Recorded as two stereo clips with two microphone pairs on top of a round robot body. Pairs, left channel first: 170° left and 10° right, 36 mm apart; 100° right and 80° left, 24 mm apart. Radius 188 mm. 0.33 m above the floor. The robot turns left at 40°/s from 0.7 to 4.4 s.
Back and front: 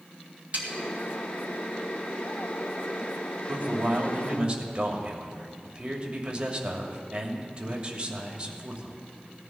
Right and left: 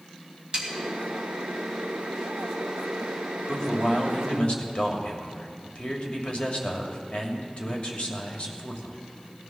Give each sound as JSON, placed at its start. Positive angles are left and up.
{"t": 0.5, "sound": "a snare drum", "azimuth_deg": 40, "distance_m": 3.0}
{"t": 3.5, "sound": "a man speaking", "azimuth_deg": -40, "distance_m": 2.5}